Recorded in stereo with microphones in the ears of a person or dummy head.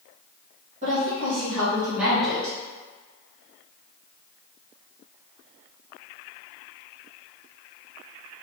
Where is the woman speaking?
35° right (ahead or behind), 1.8 m; by 2.6 s 15° left (ahead or behind), 1.4 m.